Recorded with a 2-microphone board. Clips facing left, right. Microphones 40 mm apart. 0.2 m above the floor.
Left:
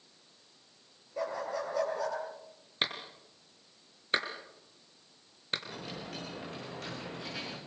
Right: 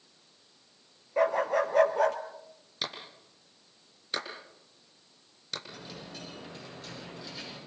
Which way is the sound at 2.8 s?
35° left (ahead or behind).